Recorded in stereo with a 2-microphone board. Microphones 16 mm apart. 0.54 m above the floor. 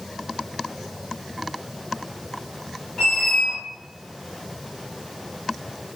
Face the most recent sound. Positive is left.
turn(degrees=60)  # may be behind; listen again after turning